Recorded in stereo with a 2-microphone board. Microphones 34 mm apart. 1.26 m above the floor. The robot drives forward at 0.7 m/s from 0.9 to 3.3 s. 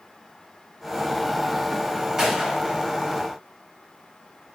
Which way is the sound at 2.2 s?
15° right (ahead or behind).